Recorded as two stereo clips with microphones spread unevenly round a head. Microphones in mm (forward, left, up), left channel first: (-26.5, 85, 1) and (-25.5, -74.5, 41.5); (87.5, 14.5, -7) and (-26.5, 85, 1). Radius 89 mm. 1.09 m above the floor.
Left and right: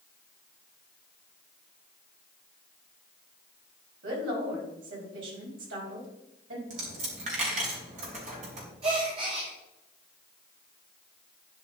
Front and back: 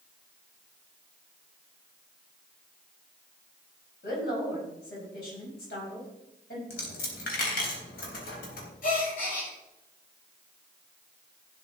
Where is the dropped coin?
40° right, 3.5 m.